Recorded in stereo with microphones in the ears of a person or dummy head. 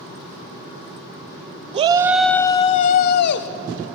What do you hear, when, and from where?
1.7 s a shout: 25° right (ahead or behind), 0.7 m; by 3.5 s 60° left (ahead or behind), 1.1 m